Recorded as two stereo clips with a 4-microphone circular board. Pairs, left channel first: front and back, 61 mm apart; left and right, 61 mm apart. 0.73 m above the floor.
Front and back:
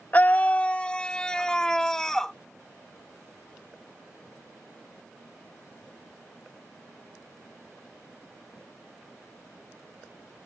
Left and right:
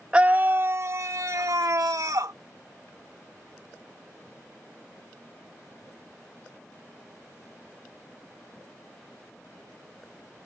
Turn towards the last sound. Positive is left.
turn(degrees=-80)